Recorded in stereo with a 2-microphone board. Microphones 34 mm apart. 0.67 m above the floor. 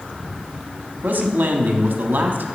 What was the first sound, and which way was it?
A man speaking, 55° right (ahead or behind).